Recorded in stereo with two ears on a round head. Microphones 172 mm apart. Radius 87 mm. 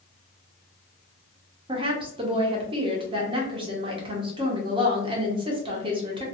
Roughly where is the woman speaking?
Right.